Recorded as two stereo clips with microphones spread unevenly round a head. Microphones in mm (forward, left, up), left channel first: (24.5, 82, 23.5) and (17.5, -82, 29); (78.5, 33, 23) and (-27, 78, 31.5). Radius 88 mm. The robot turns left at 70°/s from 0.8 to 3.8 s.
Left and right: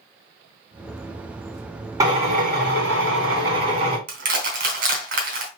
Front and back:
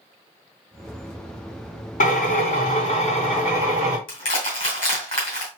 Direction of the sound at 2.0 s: 20° right.